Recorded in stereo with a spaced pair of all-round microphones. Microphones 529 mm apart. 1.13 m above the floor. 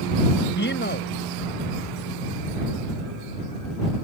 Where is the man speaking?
20° left (ahead or behind).